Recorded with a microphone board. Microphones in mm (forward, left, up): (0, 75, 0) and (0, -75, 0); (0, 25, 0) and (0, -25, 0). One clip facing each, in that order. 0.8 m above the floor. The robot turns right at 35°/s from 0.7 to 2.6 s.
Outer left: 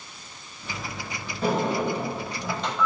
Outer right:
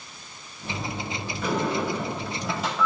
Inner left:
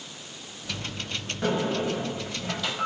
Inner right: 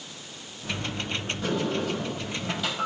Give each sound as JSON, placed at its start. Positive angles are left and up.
{"t": 1.4, "sound": "a sliding door", "azimuth_deg": 145, "distance_m": 4.5}